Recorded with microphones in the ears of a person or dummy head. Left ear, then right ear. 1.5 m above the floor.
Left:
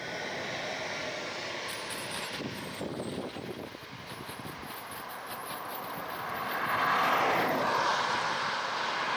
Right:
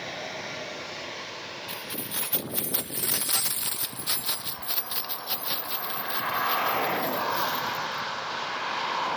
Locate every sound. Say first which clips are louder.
1.7 s keys jangling: right 1 dB; 10° right (ahead or behind); by 8.1 s 35° right (ahead or behind)